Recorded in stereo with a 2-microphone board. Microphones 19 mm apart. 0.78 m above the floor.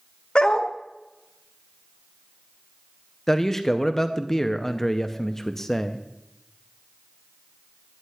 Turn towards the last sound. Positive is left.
turn(degrees=20)  # may be behind; listen again after turning